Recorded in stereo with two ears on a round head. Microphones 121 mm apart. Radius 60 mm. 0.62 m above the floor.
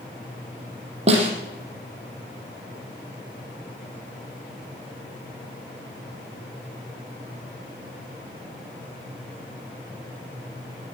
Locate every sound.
1.1 s a snare drum: 50° right (ahead or behind), 4.5 m